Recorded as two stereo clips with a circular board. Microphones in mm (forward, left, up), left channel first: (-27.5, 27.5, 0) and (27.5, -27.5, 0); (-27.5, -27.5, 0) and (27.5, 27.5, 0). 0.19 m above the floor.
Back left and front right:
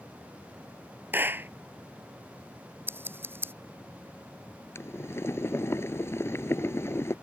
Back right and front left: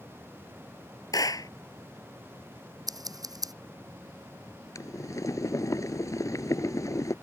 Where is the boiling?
175° right.